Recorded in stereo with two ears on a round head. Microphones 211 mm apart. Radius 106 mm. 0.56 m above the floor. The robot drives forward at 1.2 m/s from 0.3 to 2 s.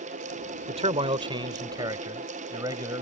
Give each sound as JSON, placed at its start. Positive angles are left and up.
{"t": 0.7, "sound": "a man speaking", "side_deg": -30}